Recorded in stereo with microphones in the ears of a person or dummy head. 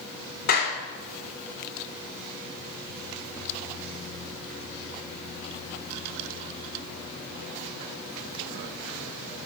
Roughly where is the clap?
Left.